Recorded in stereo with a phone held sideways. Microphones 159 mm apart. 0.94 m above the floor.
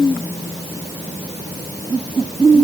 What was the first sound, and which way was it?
Only background noise.